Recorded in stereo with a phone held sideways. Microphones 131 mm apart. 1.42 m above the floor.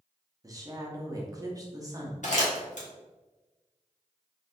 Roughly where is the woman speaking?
Right.